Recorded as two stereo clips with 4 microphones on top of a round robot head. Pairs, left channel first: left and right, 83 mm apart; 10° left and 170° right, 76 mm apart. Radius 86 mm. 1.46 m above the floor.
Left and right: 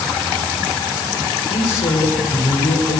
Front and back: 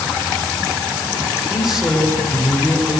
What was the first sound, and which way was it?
A man speaking, 105° left.